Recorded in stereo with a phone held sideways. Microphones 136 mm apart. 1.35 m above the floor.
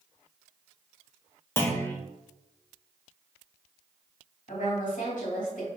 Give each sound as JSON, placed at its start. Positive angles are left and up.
{"t": 1.6, "sound": "a clunk", "side_deg": 15, "distance_m": 0.7}
{"t": 4.5, "sound": "a woman speaking", "side_deg": 65, "distance_m": 2.0}